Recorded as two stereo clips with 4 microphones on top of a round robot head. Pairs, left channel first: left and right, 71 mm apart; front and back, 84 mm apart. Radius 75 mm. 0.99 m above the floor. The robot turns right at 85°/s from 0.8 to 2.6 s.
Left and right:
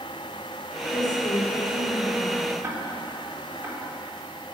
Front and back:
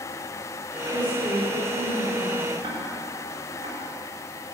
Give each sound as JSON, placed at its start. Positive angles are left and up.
{"t": 0.9, "sound": "a woman speaking", "azimuth_deg": 60, "distance_m": 4.0}
{"t": 2.6, "sound": "ticking", "azimuth_deg": -145, "distance_m": 4.0}